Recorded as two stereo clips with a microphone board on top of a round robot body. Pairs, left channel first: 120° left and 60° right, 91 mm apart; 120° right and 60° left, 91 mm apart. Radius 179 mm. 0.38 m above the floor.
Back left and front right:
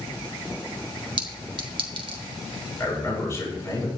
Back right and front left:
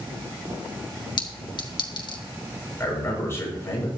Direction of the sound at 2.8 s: Straight behind.